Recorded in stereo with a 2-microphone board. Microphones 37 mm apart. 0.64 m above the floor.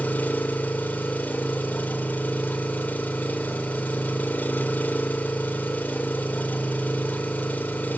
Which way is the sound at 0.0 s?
50° left (ahead or behind).